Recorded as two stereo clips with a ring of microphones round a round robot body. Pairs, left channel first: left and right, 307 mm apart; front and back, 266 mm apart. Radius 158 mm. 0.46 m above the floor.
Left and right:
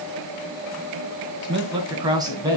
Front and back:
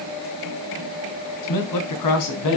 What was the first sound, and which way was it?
A man speaking, 15° right.